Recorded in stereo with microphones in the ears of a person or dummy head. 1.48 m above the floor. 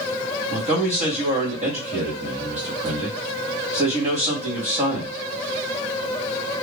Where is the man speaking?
40° right (ahead or behind), 1.3 m.